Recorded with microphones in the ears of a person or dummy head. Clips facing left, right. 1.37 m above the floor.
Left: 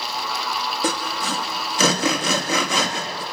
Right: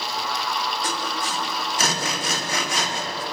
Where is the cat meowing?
I don't hear a cat meowing.